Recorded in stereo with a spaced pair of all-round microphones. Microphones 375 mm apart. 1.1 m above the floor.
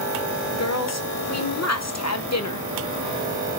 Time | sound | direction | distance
0.5 | a woman speaking | 45° left (ahead or behind) | 1.0 m